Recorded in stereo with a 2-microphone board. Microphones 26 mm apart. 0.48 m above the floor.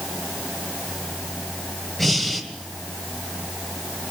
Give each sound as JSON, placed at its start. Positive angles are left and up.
{"t": 2.0, "sound": "breathing", "side_deg": 10, "distance_m": 2.5}